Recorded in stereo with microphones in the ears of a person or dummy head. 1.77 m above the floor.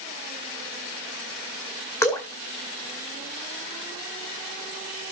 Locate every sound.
2.0 s dripping: 20° left (ahead or behind), 2 m